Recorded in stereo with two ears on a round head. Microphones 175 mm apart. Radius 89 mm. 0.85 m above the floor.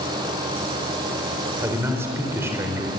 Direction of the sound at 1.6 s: 15° right (ahead or behind).